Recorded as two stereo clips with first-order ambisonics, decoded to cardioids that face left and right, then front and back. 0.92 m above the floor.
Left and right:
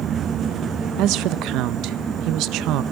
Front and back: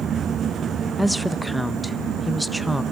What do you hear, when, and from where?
1.0 s a woman speaking: 90° right, 0.5 m